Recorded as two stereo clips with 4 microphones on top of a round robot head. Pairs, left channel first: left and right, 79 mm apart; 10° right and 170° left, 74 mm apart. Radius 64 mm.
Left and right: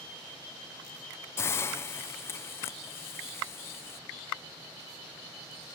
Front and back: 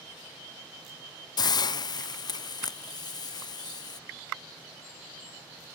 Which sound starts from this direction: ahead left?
A hiss, at 1.4 s.